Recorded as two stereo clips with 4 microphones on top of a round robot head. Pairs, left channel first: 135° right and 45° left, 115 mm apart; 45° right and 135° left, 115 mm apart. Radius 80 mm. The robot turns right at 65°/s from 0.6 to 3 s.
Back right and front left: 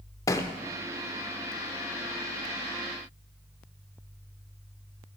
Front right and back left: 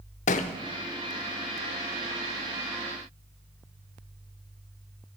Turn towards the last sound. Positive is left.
turn(degrees=90)